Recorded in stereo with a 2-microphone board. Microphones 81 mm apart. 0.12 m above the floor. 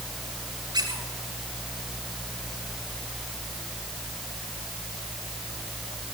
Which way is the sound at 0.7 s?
65° right (ahead or behind).